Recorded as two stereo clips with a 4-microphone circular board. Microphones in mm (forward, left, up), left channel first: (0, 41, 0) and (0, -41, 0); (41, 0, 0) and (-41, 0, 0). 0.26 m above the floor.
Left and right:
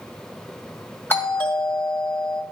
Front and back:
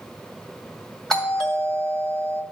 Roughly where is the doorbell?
Left.